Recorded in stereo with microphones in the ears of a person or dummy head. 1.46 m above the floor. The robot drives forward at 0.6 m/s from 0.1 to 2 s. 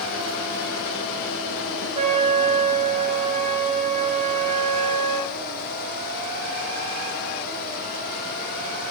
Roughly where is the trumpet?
Right.